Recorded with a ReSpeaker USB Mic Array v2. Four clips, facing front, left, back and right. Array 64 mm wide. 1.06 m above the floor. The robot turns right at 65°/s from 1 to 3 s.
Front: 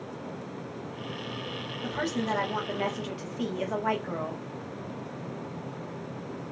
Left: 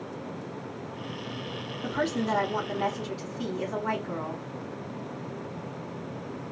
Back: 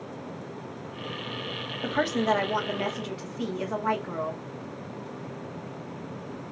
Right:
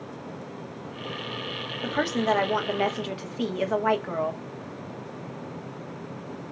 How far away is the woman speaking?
About 1.4 m.